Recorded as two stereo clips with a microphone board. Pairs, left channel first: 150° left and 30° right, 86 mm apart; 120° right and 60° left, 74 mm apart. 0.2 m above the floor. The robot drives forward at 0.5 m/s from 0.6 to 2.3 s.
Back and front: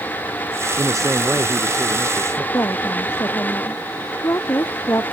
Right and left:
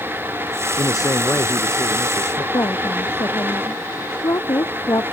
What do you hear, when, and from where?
0.8 s a man speaking: 80° right; by 2.4 s 85° right
2.5 s a woman speaking: 155° right